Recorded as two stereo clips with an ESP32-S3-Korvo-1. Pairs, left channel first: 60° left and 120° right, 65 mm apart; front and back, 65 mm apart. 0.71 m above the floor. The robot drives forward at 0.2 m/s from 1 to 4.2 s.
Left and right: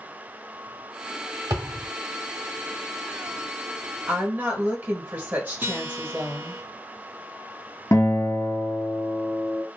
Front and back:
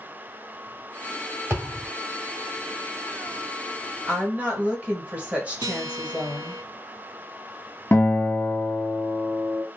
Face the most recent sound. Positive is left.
turn(degrees=55)